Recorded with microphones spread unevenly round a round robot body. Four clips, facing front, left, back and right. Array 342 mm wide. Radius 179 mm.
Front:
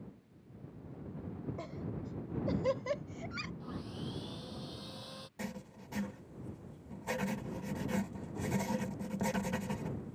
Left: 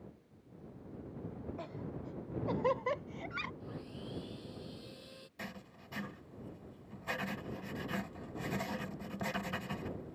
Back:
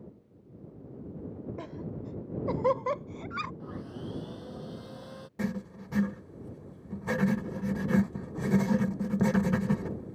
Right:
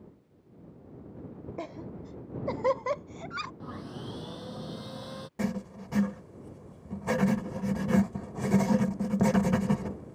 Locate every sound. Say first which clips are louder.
1.6 s laughter: right 5 dB, back 3 dB; 135° right; by 3.5 s 125° right
3.6 s sawing: right 6 dB, back 3 dB; 85° right
5.4 s writing: right 16 dB, back 11 dB; 135° right